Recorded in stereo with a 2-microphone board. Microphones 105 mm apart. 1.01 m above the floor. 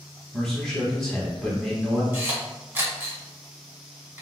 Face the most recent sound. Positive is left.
turn(degrees=-20)  # may be behind; listen again after turning